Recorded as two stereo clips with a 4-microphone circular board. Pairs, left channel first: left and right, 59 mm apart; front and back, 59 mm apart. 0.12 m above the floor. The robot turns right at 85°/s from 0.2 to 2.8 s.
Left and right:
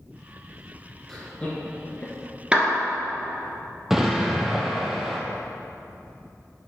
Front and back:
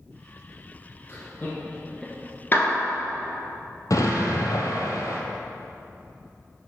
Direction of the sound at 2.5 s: 25° right.